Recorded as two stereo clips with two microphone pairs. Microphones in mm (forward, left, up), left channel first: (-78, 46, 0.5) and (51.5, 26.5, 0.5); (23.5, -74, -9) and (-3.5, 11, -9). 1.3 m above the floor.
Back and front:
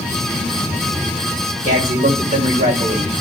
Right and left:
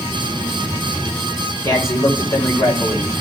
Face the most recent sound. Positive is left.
turn(degrees=-15)